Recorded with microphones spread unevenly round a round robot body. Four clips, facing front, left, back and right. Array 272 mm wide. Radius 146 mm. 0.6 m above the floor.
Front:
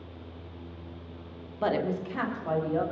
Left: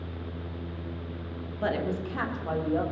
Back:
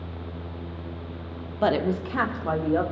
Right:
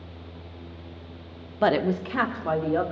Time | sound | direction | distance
1.6 | a woman speaking | 130° right | 1.0 m